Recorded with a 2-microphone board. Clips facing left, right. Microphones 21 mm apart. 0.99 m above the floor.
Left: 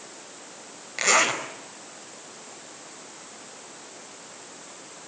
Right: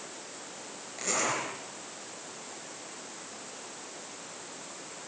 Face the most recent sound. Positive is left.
turn(degrees=50)  # may be behind; listen again after turning